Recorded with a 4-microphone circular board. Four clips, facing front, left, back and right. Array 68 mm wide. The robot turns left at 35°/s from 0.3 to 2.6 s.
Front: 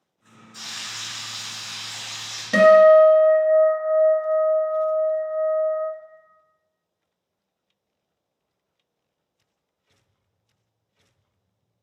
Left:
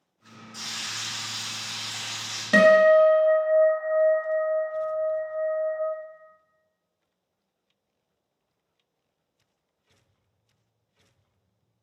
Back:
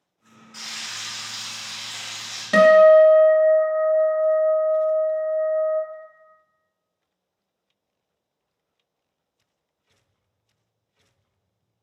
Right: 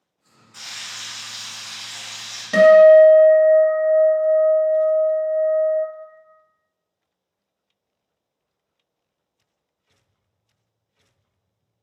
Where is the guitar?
130° left, 0.7 m.